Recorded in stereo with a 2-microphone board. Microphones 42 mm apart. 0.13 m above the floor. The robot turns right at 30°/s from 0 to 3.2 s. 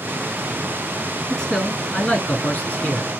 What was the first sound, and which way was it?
A man speaking, 20° left.